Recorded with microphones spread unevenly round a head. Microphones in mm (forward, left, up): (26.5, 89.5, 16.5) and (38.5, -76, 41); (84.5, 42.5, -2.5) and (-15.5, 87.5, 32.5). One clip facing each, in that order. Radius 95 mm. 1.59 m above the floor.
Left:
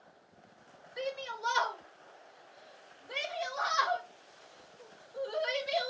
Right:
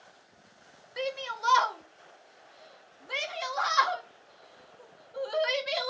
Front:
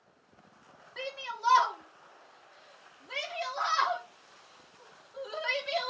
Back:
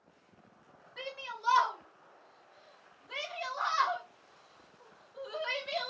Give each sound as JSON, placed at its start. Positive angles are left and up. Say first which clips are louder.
{"t": 1.0, "sound": "a shout", "louder": "right 3 dB, front 4 dB", "azimuth_deg": -85, "distance_m": 0.8}